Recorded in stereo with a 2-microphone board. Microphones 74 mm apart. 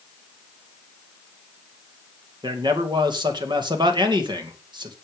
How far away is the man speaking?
About 2.5 m.